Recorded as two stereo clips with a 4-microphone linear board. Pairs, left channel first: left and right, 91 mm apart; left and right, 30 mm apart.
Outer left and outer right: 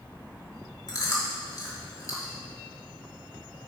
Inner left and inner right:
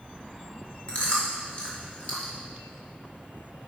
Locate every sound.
0.9 s chewing: 40° left (ahead or behind), 1.9 m